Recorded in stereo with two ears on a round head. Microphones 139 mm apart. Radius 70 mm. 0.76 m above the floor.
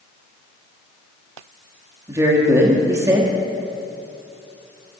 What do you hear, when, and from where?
2.1 s a woman speaking: 15° right (ahead or behind), 1.4 m